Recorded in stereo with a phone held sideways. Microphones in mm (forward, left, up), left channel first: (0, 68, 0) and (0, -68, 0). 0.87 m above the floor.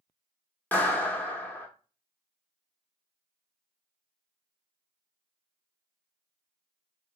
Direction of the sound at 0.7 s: 10° left (ahead or behind).